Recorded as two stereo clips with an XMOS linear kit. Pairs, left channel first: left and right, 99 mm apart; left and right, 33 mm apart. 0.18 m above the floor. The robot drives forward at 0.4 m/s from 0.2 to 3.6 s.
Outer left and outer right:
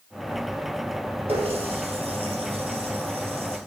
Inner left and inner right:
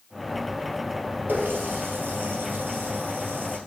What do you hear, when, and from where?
1.3 s a running tap: 70° right (ahead or behind), 2.5 m; by 3.6 s 75° right (ahead or behind), 2.5 m